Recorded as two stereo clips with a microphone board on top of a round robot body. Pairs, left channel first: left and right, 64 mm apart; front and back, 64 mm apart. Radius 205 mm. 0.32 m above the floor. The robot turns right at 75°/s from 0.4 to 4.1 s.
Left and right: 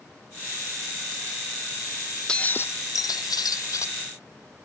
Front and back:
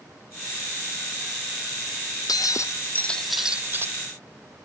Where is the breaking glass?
10° left; by 4.0 s 135° left.